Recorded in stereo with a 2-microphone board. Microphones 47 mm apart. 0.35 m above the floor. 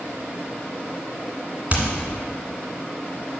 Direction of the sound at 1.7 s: 30° right (ahead or behind).